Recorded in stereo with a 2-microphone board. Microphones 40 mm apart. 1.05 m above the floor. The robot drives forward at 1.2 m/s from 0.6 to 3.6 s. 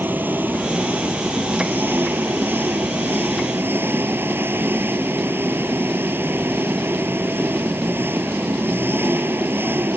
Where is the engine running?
50° right (ahead or behind); by 10.0 s 65° right (ahead or behind).